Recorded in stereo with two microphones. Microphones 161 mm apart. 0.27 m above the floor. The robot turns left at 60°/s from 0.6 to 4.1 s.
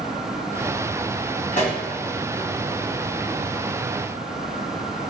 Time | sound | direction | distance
1.5 | a pop | 50° left (ahead or behind) | 2.5 m